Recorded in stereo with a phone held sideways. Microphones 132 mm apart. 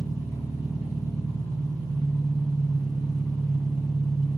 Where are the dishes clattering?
No dishes clattering in this recording.